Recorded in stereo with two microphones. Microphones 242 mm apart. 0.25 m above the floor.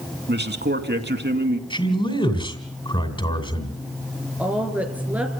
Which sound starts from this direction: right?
A man speaking, at 0.3 s.